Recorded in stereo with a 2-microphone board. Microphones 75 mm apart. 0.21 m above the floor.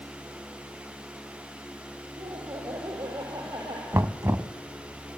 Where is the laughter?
70° right (ahead or behind), 6 m; by 3.8 s 75° right (ahead or behind), 5.5 m.